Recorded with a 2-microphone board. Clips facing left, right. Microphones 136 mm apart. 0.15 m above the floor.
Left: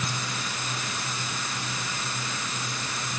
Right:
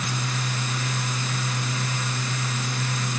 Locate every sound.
Only background noise.